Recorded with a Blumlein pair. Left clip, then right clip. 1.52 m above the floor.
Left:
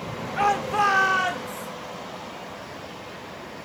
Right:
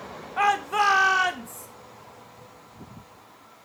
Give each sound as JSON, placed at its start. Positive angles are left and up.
{"t": 0.4, "sound": "a shout", "azimuth_deg": -5, "distance_m": 1.0}